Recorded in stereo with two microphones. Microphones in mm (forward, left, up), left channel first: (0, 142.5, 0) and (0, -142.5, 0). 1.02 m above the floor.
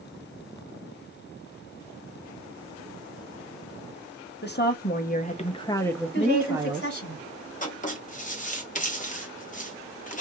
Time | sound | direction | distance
4.4 | a woman speaking | 35° left (ahead or behind) | 0.9 m
6.1 | a woman speaking | 40° left (ahead or behind) | 1.8 m
7.6 | writing | 25° left (ahead or behind) | 1.0 m